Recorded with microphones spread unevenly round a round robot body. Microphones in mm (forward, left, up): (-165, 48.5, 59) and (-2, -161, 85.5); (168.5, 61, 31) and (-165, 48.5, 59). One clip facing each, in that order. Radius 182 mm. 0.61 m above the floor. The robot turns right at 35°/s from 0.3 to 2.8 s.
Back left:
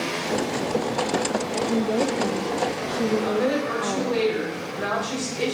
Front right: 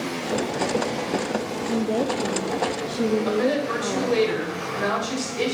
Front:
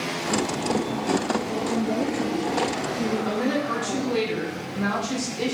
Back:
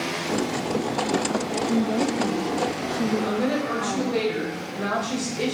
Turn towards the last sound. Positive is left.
turn(degrees=-85)